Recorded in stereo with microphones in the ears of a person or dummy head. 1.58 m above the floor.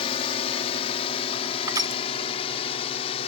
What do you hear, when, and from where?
0.0 s a drone: 35° left (ahead or behind); by 3.3 s 40° left (ahead or behind)
1.7 s crushing: 20° right (ahead or behind)